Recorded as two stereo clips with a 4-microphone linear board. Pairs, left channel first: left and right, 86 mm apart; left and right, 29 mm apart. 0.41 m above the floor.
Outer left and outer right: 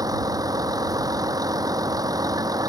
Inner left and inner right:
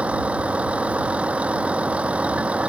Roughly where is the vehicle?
Right.